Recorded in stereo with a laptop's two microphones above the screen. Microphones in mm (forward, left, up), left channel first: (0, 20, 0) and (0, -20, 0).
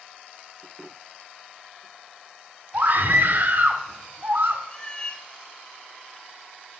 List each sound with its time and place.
2.7 s a scream: 55° right (ahead or behind), 2.5 m
4.7 s a cat meowing: 20° left (ahead or behind), 0.9 m